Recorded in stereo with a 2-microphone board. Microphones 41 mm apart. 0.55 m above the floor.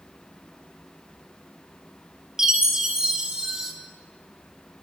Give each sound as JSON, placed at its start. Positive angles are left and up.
{"t": 2.4, "sound": "a chime", "side_deg": -15, "distance_m": 1.3}